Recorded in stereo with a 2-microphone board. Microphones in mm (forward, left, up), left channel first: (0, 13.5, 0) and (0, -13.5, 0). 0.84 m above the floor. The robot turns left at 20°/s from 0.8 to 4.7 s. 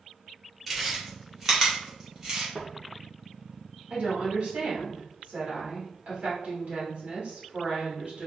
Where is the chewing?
Centre (ahead or behind), 1.8 m; by 2.5 s 30° right (ahead or behind), 1.8 m.